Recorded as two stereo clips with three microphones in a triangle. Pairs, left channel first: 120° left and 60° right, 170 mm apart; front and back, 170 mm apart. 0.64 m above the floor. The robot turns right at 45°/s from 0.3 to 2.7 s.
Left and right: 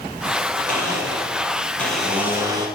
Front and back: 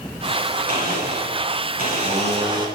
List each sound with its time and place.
0.7 s a blender: 150° left, 1.0 m; by 2.7 s 120° right, 1.0 m